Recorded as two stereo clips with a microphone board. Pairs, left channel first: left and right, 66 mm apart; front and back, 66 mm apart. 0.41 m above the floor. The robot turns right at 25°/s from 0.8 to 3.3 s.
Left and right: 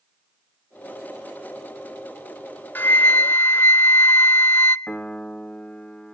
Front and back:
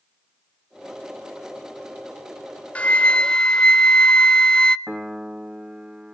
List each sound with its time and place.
2.8 s a flute: 50° left, 0.6 m; by 4.8 s 65° left, 0.6 m
4.9 s a piano: 130° left, 1.1 m